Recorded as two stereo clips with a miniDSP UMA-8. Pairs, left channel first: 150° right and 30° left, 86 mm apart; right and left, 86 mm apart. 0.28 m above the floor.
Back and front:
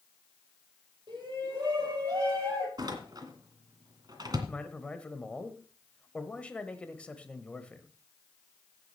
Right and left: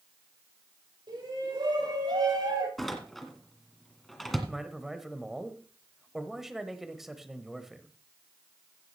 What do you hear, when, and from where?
1.1 s a shout: 65° left, 7 m; by 2.7 s 85° left, 6.5 m
2.8 s a door slam: straight ahead, 2.0 m
4.5 s a man speaking: 170° left, 1.1 m